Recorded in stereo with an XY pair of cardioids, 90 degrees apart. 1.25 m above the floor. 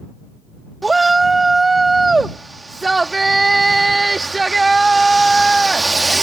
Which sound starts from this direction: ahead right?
A shout, at 0.8 s.